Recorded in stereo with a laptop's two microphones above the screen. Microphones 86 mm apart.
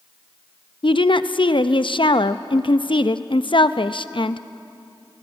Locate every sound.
0.8 s a woman speaking: 75° left (ahead or behind), 0.7 m